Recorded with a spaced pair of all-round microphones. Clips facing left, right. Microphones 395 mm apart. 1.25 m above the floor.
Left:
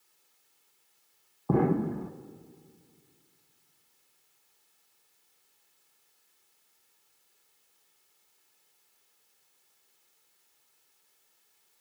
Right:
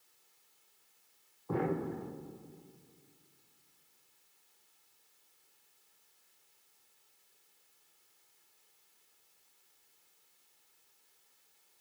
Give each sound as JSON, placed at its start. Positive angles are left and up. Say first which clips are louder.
{"t": 1.5, "sound": "an explosion", "louder": "left 8 dB", "side_deg": 65, "distance_m": 0.8}